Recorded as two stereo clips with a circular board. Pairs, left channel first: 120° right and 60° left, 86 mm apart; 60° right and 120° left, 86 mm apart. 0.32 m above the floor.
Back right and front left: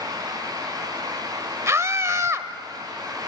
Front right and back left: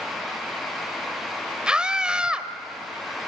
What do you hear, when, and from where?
1.7 s a scream: 50° left, 1.2 m